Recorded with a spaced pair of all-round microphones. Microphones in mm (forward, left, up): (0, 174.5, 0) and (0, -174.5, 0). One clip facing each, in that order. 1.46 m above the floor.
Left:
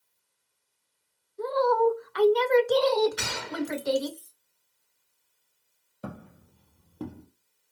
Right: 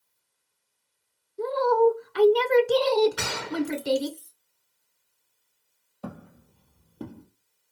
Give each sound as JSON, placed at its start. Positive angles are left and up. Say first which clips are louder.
{"t": 1.4, "sound": "a woman speaking", "louder": "right 3 dB", "side_deg": -40, "distance_m": 0.6}
{"t": 3.2, "sound": "a gunshot", "louder": "right 4 dB", "side_deg": -60, "distance_m": 0.7}
{"t": 6.0, "sound": "footsteps", "louder": "right 1 dB", "side_deg": 5, "distance_m": 2.0}